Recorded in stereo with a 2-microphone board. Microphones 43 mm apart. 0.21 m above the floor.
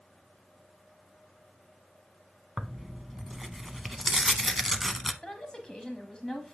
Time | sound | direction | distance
2.6 | tearing paper | centre (ahead or behind) | 0.5 m
5.2 | a woman speaking | 20° left (ahead or behind) | 1.0 m